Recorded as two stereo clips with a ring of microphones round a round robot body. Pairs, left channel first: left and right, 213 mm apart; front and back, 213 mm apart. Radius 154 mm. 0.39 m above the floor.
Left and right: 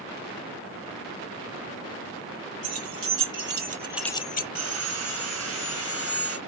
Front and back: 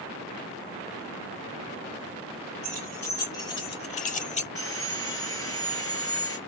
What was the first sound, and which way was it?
Keys jangling, 85° right.